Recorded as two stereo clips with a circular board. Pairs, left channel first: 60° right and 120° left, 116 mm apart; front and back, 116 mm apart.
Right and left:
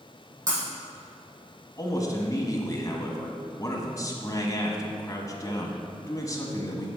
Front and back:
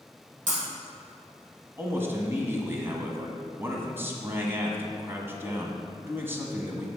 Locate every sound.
0.5 s breaking glass: 175° right, 3.5 m
1.8 s a man speaking: 115° right, 1.6 m